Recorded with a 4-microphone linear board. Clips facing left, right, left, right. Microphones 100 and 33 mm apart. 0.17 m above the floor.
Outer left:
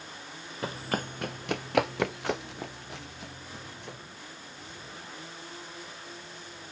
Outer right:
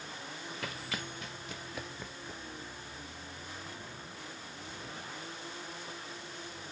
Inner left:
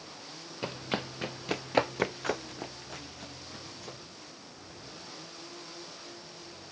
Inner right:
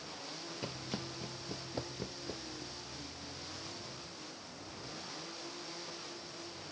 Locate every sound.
0.6 s running footsteps: 30° left (ahead or behind); by 4.0 s 75° left (ahead or behind)